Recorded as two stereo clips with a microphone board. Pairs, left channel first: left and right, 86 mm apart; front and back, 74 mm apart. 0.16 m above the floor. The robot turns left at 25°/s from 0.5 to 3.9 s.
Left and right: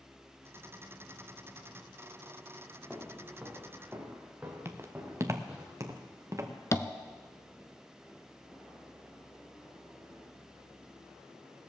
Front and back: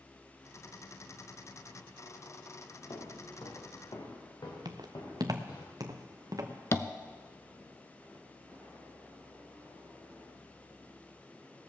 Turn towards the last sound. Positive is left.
turn(degrees=45)